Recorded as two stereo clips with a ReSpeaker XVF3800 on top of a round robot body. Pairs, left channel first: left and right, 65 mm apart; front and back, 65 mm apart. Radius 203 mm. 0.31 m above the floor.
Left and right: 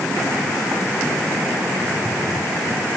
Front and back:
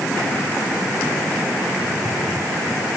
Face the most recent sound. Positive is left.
No sound to turn to.